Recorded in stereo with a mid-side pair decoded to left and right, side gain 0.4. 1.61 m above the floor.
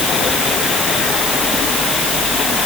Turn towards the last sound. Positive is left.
No sound to turn to.